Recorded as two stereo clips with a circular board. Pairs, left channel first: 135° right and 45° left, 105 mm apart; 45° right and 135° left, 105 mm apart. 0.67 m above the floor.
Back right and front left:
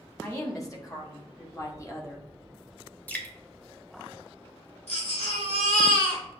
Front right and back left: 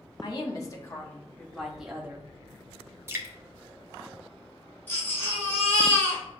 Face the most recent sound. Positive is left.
turn(degrees=-120)